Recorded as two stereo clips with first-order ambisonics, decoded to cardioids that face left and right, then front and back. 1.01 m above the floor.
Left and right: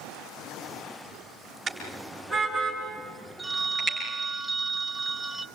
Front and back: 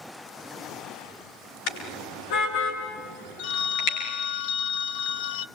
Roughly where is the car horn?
Ahead.